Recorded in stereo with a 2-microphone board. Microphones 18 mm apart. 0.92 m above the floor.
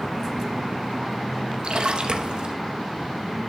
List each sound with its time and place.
1.6 s a splash: 55° right (ahead or behind), 0.6 m